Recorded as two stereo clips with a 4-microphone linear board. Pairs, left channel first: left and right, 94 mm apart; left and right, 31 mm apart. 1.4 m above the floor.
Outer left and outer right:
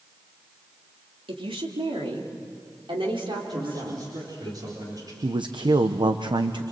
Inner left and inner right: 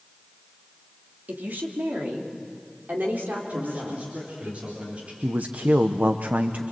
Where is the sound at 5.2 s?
55° right (ahead or behind), 0.9 m.